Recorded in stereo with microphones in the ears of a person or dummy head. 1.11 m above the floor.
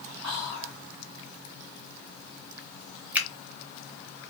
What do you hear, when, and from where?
0.2 s whispering: 55° right (ahead or behind), 1.7 m
3.1 s a finger snap: 10° right (ahead or behind), 1.0 m